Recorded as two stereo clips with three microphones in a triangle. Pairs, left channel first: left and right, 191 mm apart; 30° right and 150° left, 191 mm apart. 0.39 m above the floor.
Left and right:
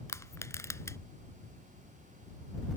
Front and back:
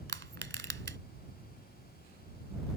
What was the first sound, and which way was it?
Crushing, 160° left.